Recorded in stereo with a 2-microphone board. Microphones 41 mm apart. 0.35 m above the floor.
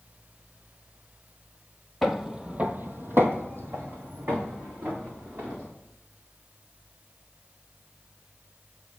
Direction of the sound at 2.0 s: Centre (ahead or behind).